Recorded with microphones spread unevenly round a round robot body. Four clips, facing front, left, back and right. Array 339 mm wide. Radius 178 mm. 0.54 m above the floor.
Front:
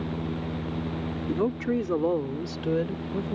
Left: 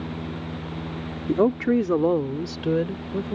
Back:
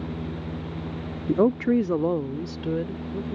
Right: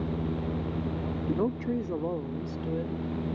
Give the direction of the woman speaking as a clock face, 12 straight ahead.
8 o'clock.